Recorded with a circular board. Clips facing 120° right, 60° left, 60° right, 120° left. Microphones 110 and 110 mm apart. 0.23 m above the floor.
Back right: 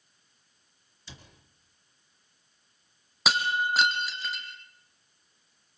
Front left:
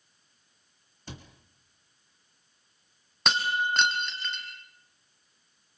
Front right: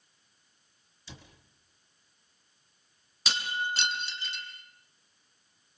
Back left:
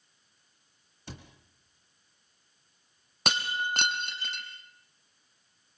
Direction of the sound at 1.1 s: 95° left.